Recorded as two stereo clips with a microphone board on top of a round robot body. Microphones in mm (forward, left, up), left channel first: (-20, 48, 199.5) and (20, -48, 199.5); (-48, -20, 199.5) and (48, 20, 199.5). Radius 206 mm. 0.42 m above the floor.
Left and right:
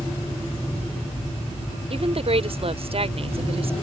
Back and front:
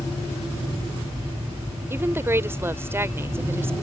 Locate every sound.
1.9 s a woman speaking: 45° right